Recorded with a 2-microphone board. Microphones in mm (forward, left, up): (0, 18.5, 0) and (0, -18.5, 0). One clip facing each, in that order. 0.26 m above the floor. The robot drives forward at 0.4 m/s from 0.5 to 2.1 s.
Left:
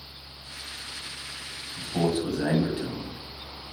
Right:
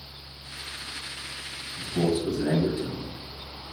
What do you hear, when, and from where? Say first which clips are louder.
1.8 s a man speaking: even; 55° left (ahead or behind), 1.7 m